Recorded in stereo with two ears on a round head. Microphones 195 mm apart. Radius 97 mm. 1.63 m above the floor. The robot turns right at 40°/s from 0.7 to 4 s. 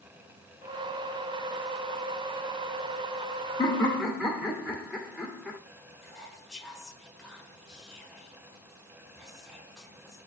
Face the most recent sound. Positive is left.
turn(degrees=0)  # may be behind; listen again after turning